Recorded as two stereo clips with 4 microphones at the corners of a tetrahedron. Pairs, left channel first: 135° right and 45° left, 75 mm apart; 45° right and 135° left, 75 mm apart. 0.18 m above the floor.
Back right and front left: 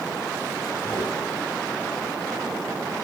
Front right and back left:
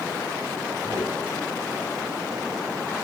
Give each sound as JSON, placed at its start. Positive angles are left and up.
{"t": 0.8, "sound": "footsteps", "azimuth_deg": 165, "distance_m": 8.5}